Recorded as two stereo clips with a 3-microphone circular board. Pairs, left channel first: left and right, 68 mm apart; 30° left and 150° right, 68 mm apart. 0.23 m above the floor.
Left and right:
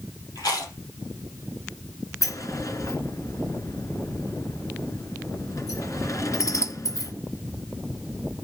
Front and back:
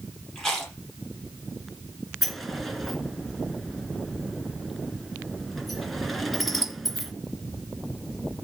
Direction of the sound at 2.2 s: 120° left.